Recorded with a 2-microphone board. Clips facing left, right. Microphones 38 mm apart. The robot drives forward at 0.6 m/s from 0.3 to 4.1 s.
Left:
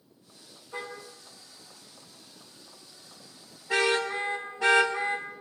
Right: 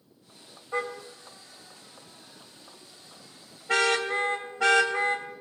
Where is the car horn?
75° right (ahead or behind), 4 m; by 5.3 s 65° right (ahead or behind), 4 m.